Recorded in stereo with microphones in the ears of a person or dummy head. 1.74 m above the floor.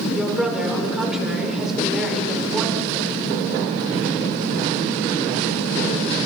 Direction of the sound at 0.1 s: 5° right (ahead or behind).